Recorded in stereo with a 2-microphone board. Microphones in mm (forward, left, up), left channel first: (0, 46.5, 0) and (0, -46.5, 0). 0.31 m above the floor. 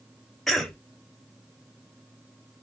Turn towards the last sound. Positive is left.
turn(degrees=5)  # may be behind; listen again after turning